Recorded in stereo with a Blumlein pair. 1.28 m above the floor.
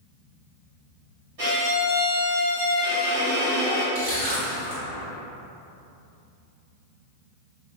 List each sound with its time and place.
1.4 s a violin: 50° right, 1.8 m
4.0 s crushing: 55° right, 1.8 m